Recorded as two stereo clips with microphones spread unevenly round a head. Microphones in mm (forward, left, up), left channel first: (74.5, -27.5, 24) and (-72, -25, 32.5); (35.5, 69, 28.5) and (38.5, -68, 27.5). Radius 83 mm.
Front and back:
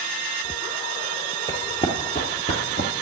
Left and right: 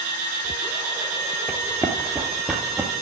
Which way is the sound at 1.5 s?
35° right.